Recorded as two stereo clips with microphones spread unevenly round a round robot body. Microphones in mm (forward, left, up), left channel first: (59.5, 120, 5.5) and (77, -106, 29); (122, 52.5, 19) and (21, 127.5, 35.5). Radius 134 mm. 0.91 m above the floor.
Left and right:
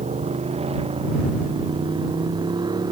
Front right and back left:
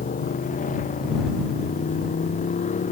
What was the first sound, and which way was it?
A motorcycle, 25° right.